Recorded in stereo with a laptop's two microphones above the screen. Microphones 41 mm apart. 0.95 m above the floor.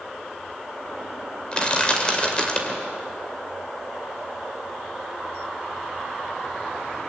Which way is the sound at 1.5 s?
25° left (ahead or behind).